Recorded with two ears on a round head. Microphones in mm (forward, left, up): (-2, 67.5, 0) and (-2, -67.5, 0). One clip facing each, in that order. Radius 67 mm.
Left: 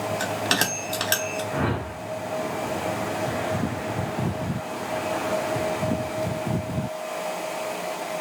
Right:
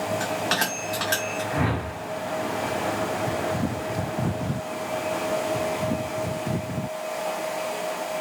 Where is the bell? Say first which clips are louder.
Even; 40° left (ahead or behind), 1.0 m.